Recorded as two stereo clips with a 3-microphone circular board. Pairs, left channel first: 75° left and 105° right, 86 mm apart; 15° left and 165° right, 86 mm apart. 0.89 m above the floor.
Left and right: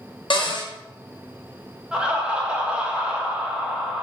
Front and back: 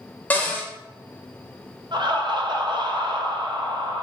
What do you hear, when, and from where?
0.3 s a cupboard door: 85° left, 0.5 m
1.9 s laughter: straight behind, 0.5 m